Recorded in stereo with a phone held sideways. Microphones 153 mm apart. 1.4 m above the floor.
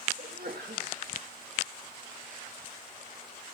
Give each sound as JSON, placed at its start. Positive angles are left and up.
{"t": 0.2, "sound": "a sneeze", "side_deg": -80, "distance_m": 1.9}